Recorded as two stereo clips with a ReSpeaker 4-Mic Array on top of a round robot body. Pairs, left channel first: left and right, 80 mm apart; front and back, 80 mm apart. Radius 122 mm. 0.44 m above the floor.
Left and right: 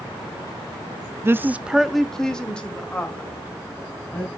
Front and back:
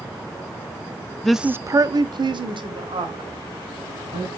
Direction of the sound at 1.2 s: 80° right.